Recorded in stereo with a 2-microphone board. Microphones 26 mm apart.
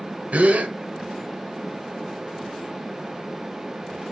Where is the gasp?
60° right (ahead or behind), 0.7 m.